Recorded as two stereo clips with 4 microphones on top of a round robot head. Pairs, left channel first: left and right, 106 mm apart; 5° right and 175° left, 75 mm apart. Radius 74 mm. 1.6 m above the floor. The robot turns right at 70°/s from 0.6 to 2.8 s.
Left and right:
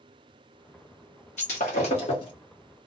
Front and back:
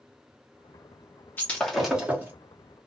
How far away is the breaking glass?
About 1.1 m.